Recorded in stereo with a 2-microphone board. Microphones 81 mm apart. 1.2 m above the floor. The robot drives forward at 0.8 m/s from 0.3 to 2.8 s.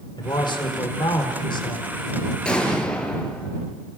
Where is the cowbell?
I don't hear a cowbell.